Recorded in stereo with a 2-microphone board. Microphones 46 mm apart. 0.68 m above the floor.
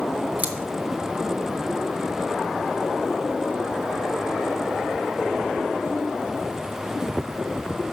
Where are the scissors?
35° right (ahead or behind), 0.9 m.